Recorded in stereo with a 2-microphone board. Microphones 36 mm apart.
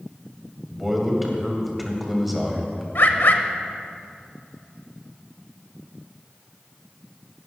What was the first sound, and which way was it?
A man speaking, 5° right (ahead or behind).